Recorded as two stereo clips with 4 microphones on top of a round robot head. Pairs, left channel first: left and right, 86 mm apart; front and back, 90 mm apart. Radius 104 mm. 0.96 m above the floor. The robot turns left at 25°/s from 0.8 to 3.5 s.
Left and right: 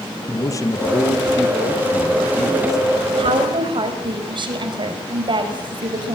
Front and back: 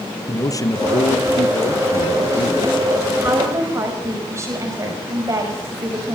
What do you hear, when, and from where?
0.3 s a man speaking: 45° left, 1.5 m; by 2.8 s 5° right, 1.5 m
3.2 s a woman speaking: 110° right, 5.5 m; by 6.2 s 120° right, 5.5 m